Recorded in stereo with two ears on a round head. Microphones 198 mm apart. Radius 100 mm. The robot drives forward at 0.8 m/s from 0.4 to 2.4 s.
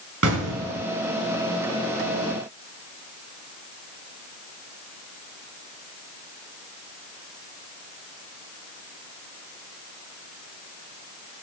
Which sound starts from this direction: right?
An explosion, at 0.2 s.